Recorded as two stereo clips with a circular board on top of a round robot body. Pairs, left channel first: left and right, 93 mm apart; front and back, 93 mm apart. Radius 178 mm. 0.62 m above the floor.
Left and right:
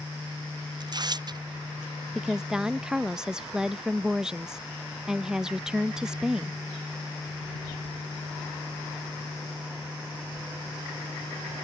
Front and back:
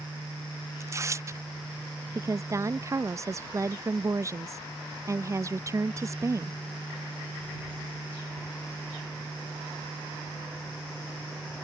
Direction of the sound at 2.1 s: 165° right.